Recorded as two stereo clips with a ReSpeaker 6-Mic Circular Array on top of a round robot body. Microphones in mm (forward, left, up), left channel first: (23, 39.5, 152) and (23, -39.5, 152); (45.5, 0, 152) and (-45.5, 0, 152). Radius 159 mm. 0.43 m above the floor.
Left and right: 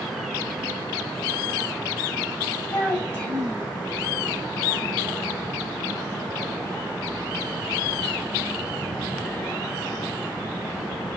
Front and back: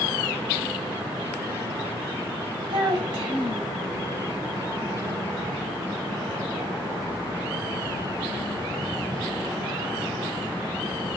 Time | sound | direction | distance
2.7 | a child speaking | 160° left | 2.5 m